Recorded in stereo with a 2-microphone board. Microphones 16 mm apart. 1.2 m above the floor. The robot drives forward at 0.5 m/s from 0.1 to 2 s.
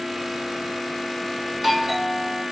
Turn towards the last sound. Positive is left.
turn(degrees=-5)  # may be behind; listen again after turning